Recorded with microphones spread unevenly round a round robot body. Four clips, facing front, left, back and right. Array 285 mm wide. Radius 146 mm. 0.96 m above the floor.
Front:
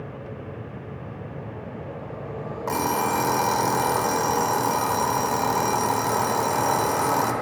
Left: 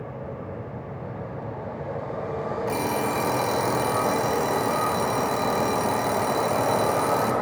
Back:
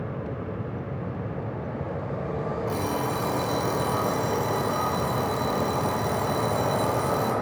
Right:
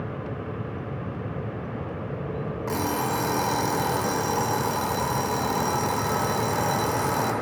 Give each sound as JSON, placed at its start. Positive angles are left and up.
{"t": 2.7, "sound": "an alarm clock", "azimuth_deg": 25, "distance_m": 1.1}